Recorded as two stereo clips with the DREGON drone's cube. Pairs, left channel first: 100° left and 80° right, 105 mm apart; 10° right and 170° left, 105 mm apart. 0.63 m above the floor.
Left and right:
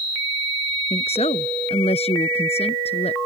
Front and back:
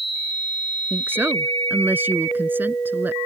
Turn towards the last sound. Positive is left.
turn(degrees=100)